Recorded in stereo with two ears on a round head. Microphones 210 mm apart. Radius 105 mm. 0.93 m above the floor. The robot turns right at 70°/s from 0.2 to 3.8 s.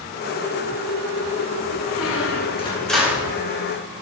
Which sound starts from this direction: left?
A squeak, at 1.9 s.